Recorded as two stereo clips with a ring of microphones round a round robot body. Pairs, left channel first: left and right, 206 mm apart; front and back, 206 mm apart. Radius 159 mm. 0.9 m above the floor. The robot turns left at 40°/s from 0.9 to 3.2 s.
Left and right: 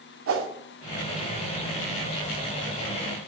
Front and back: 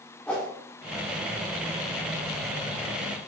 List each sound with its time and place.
0.3 s a whoosh: 85° right, 1.9 m